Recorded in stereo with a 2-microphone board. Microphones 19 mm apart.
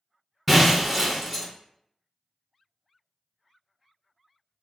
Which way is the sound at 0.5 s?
Centre (ahead or behind).